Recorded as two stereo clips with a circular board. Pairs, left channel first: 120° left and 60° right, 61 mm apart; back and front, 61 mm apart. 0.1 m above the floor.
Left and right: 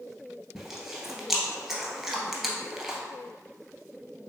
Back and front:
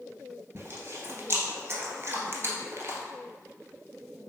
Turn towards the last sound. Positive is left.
turn(degrees=30)